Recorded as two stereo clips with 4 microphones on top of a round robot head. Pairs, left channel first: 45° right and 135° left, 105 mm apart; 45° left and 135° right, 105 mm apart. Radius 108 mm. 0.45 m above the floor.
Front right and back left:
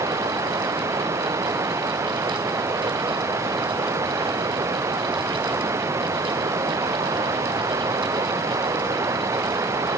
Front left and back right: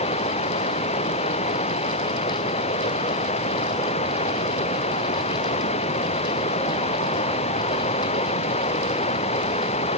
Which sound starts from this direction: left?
Running water, at 0.0 s.